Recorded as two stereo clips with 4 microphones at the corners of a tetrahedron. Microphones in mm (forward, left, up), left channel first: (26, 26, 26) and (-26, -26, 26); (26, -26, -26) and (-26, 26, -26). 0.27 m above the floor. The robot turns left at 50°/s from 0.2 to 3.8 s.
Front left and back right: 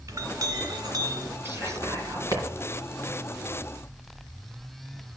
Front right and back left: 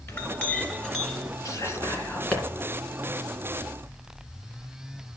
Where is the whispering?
80° right, 2.5 m; by 2.4 s 130° right, 2.5 m.